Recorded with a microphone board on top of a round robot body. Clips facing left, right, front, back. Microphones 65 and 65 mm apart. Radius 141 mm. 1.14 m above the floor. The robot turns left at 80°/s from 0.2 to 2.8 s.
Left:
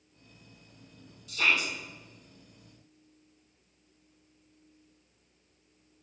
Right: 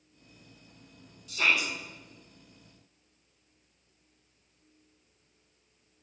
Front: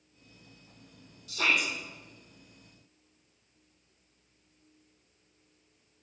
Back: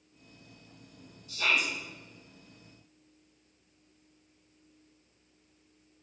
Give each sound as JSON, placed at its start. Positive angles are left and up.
{"t": 1.3, "sound": "a shout", "azimuth_deg": 0, "distance_m": 3.5}